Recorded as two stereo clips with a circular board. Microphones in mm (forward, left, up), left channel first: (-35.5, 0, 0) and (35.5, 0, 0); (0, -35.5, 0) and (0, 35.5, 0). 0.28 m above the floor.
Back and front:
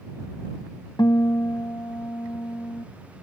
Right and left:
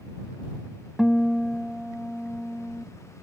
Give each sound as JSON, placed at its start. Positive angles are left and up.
{"t": 1.0, "sound": "a guitar", "azimuth_deg": 180}